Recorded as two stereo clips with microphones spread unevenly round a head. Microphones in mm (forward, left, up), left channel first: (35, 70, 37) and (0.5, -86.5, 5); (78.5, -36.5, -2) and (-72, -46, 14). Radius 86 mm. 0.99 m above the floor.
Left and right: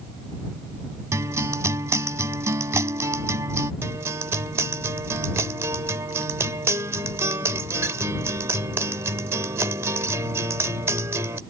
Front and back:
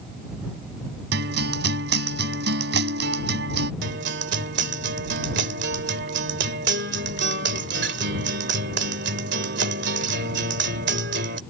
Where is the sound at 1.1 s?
Straight behind.